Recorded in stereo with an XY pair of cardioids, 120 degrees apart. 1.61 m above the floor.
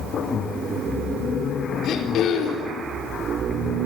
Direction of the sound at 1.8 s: 65° left.